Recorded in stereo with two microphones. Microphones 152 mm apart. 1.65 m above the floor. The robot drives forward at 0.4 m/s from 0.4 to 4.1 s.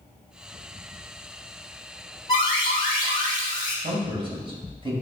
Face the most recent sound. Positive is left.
turn(degrees=-35)  # may be behind; listen again after turning